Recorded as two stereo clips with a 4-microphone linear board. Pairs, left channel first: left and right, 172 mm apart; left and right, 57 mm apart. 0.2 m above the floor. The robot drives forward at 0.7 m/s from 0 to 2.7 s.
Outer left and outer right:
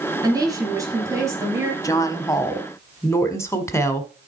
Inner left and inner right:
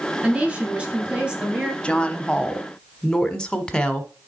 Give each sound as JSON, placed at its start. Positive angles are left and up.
{"t": 0.2, "sound": "a woman speaking", "side_deg": -20, "distance_m": 2.5}
{"t": 1.8, "sound": "a woman speaking", "side_deg": 20, "distance_m": 1.0}